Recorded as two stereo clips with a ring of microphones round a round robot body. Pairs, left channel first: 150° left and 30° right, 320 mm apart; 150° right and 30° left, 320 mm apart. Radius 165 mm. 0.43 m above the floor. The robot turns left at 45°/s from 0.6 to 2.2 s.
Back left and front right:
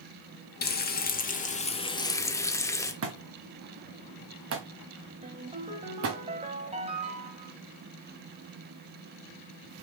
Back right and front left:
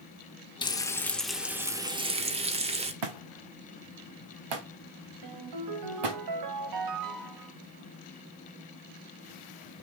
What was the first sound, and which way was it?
Frying, 150° left.